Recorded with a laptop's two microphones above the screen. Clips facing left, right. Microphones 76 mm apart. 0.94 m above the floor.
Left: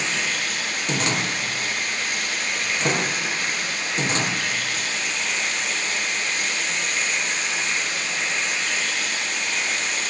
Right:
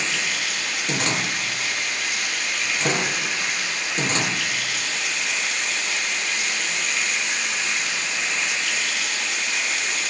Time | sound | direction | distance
0.0 | running water | 45° left (ahead or behind) | 4.5 m